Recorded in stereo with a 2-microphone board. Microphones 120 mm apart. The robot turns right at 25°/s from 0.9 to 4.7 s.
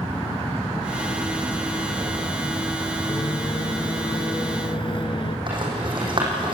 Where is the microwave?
60° left, 1.3 m; by 5.4 s 100° left, 1.3 m.